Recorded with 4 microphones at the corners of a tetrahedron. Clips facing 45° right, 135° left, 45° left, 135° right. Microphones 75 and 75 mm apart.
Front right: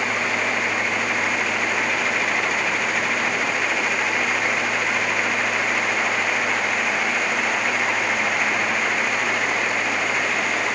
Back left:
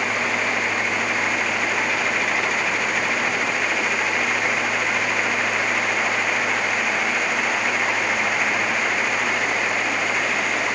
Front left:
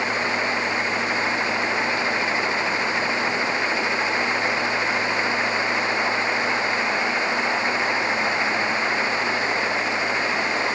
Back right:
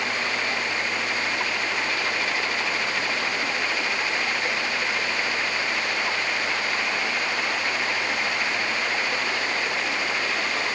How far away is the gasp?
No gasp in this recording.